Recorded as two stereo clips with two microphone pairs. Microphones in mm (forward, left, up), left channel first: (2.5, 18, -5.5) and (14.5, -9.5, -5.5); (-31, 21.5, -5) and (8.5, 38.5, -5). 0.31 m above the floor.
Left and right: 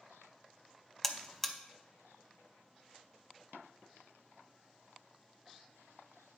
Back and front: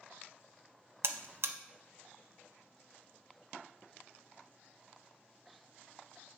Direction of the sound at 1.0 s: 35° left.